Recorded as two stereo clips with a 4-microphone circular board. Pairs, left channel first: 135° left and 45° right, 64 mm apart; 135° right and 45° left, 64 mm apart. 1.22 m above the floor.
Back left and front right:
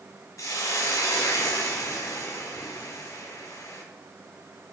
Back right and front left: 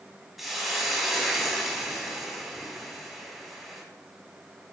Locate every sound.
0.4 s a hiss: 130° left, 1.6 m